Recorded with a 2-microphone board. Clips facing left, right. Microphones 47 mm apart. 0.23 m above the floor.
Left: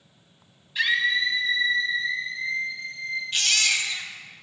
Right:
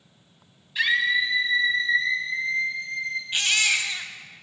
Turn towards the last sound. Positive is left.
turn(degrees=-15)  # may be behind; listen again after turning